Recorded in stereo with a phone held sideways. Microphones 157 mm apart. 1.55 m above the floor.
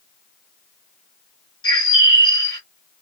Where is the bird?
30° left (ahead or behind), 1.5 m.